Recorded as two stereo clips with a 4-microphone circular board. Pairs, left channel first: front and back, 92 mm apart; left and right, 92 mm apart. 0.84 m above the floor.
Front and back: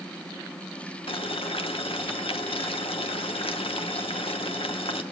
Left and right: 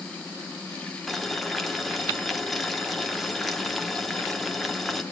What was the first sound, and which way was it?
Boiling, straight ahead.